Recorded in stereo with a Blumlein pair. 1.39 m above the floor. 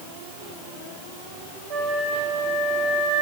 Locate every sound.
1.7 s a flute: 40° right, 5 m